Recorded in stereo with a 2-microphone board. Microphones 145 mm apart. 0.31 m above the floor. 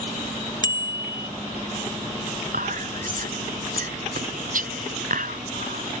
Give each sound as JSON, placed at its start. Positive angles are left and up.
{"t": 0.6, "sound": "a bicycle bell", "side_deg": 30}
{"t": 2.5, "sound": "whispering", "side_deg": -75}